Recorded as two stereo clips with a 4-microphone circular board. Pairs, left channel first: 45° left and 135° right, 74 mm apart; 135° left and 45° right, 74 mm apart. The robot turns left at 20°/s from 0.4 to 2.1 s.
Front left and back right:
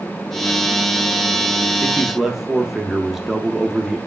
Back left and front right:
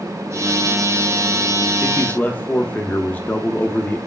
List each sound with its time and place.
1.8 s a man speaking: 150° left, 0.7 m; by 4.0 s 145° left, 0.7 m